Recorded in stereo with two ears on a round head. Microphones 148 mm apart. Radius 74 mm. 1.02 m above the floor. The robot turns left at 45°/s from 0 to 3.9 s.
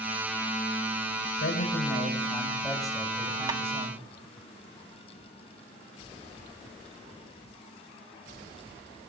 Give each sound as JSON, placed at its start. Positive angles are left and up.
{"t": 1.4, "sound": "a man speaking", "azimuth_deg": 65, "distance_m": 7.0}
{"t": 3.5, "sound": "tapping", "side_deg": -25, "distance_m": 1.0}